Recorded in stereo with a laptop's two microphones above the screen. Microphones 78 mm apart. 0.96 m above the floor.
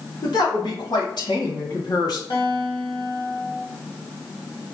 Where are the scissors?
No scissors in this recording.